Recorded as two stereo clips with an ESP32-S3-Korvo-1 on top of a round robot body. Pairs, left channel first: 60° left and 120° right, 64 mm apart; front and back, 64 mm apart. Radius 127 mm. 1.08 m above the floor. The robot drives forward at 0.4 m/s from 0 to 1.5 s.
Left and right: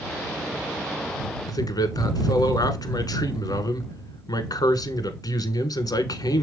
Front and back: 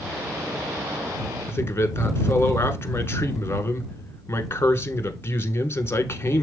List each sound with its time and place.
1.5 s a man speaking: 50° left, 1.2 m